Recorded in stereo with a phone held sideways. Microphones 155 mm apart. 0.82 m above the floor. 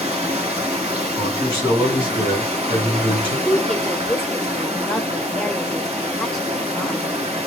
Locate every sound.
0.0 s running water: 45° right (ahead or behind), 1.1 m
1.1 s a man speaking: 35° right (ahead or behind), 1.9 m
3.5 s a woman speaking: 5° left (ahead or behind), 0.7 m